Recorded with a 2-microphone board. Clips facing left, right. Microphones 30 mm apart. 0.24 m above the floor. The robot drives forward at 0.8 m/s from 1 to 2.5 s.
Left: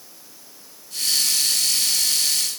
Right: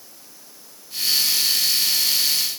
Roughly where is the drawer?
I don't hear a drawer.